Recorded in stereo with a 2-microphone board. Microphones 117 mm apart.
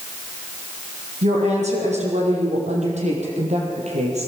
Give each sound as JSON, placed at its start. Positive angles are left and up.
{"t": 1.2, "sound": "a woman speaking", "side_deg": -80, "distance_m": 7.5}